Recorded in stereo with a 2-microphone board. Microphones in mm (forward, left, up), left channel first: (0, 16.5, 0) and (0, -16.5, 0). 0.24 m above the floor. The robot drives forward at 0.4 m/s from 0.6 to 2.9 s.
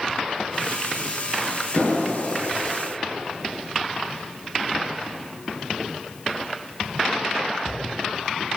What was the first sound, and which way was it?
An explosion, 60° left (ahead or behind).